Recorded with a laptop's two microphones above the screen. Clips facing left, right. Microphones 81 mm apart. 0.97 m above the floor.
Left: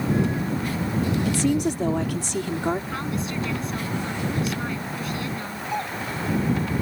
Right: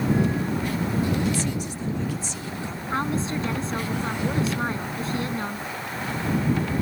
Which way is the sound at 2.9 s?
30° right (ahead or behind).